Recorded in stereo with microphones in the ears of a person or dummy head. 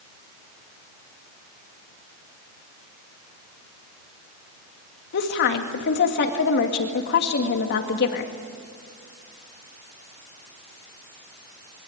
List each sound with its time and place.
5.1 s a woman speaking: 60° left (ahead or behind), 2 m